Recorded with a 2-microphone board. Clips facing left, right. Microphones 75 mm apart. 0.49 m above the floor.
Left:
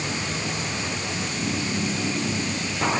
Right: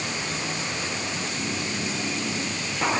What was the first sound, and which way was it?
Only background noise.